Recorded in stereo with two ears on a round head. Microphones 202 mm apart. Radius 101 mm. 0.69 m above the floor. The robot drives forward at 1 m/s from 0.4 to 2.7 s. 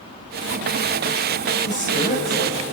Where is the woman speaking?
35° left (ahead or behind), 4 m; by 2.6 s 30° left (ahead or behind), 5 m.